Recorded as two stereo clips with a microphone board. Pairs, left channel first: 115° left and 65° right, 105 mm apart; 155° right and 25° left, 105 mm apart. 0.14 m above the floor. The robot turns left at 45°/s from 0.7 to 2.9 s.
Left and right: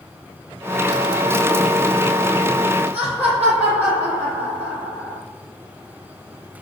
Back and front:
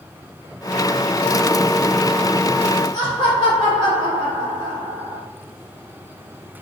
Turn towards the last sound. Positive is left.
turn(degrees=180)